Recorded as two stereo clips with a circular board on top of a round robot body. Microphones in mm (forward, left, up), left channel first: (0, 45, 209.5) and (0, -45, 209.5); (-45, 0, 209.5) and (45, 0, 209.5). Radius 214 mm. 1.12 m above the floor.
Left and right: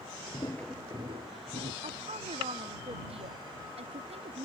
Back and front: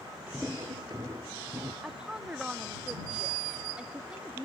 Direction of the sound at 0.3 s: 75° left.